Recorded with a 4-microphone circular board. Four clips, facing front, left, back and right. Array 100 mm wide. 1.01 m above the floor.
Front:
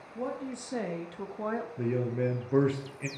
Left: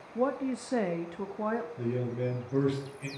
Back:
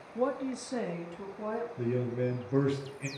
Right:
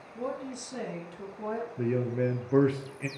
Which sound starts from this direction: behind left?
A woman speaking, at 0.1 s.